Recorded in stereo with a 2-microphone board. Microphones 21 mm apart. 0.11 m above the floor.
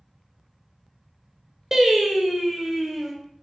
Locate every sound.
1.7 s singing: 20° right (ahead or behind), 0.8 m